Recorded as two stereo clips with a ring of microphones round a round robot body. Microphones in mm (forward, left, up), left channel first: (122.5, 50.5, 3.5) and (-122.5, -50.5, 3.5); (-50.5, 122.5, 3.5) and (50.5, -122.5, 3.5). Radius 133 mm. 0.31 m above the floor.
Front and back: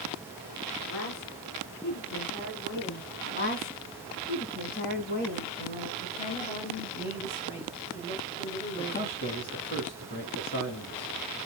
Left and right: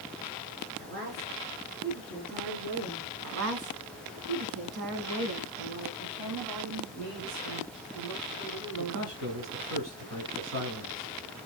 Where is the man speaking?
30° right, 3 m.